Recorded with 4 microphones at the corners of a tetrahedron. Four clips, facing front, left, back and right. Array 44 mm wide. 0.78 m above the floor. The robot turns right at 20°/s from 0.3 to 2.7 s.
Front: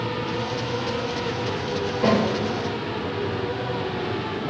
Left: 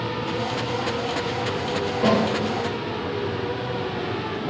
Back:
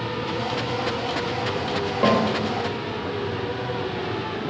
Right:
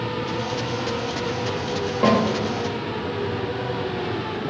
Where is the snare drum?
145° right, 1.1 m; by 2.2 s 140° right, 1.1 m.